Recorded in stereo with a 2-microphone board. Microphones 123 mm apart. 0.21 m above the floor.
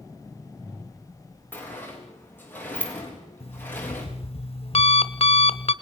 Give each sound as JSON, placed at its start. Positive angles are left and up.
{"t": 1.5, "sound": "a sliding door", "side_deg": 15, "distance_m": 4.5}
{"t": 3.4, "sound": "an alarm clock", "side_deg": 50, "distance_m": 1.0}